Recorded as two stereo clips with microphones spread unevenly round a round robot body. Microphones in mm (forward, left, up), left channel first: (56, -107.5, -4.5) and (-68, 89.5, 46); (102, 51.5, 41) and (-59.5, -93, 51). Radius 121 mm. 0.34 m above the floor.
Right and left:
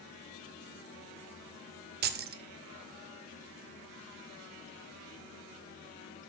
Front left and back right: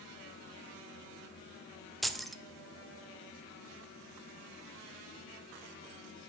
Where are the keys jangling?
125° left, 0.5 m.